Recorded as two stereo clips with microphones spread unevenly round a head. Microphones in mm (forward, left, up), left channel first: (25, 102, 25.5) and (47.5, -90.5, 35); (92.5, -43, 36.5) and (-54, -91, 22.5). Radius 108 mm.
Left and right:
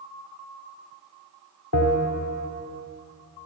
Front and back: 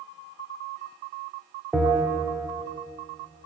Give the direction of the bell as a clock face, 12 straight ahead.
8 o'clock.